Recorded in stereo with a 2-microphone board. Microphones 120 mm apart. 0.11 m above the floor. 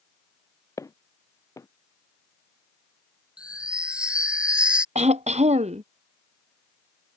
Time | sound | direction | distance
0.8 | footsteps | 25° left (ahead or behind) | ?
3.4 | a chime | 10° right (ahead or behind) | ?
5.0 | throat clearing | 70° right (ahead or behind) | ?